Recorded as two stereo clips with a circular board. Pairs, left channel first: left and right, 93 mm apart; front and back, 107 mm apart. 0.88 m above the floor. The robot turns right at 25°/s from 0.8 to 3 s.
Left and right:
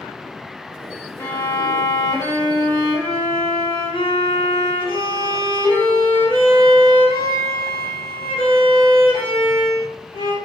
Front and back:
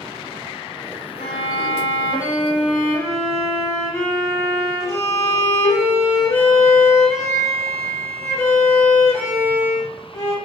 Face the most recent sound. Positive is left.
turn(degrees=65)